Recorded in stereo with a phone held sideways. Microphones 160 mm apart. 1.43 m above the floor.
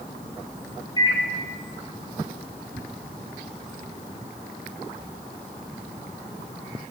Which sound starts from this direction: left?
A microwave, at 1.0 s.